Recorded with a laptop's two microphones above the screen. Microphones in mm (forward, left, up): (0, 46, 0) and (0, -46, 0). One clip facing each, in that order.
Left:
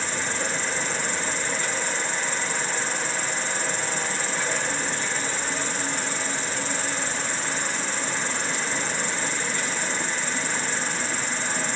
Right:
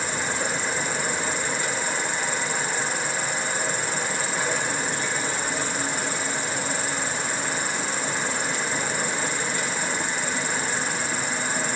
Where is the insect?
10° right (ahead or behind), 0.8 m.